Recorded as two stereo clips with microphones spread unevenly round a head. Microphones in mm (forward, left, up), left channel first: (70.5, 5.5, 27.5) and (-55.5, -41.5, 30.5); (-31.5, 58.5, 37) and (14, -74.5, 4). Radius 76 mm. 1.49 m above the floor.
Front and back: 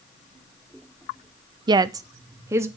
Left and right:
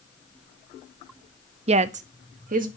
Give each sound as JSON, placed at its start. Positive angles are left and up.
{"t": 1.7, "sound": "a woman speaking", "azimuth_deg": -105, "distance_m": 0.5}